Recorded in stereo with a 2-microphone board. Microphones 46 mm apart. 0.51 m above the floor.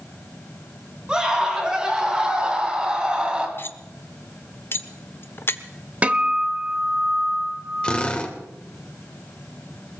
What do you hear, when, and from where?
1.1 s a scream: 20° right (ahead or behind), 5.5 m; by 3.5 s 25° right (ahead or behind), 4 m
3.6 s cutlery clinking: 55° left (ahead or behind), 0.8 m
6.0 s a guitar: 30° right (ahead or behind), 0.9 m
7.8 s a drill: 25° left (ahead or behind), 1.9 m